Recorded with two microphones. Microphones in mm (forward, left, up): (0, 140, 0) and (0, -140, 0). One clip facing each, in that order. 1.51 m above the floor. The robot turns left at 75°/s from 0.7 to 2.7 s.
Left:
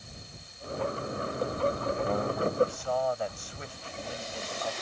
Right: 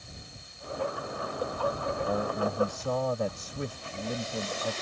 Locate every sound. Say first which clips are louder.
2.0 s a man speaking: right 1 dB; 5° right; by 4.8 s 50° right